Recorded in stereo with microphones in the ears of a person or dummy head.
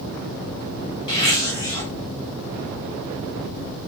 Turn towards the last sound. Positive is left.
turn(degrees=30)  # may be behind; listen again after turning